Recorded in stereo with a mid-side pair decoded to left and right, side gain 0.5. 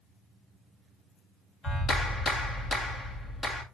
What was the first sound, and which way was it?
A clap, 45° left.